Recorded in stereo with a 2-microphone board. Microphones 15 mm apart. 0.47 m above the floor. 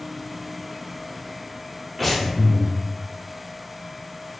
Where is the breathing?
Centre (ahead or behind), 1.0 m.